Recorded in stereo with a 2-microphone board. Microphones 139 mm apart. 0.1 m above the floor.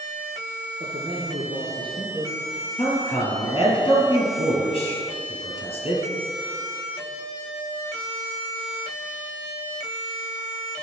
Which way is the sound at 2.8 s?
45° left (ahead or behind).